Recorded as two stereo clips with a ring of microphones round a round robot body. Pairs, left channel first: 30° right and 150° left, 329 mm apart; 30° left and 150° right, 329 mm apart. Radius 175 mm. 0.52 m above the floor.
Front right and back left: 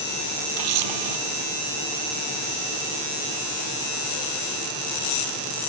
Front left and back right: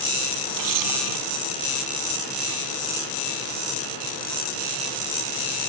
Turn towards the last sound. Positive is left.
turn(degrees=175)